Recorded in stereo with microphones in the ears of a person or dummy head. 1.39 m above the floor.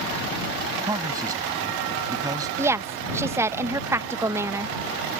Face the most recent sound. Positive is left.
turn(degrees=-10)  # may be behind; listen again after turning